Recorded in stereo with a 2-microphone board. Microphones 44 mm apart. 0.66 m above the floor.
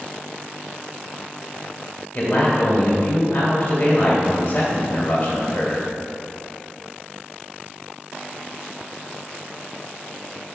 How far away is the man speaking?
About 2.5 m.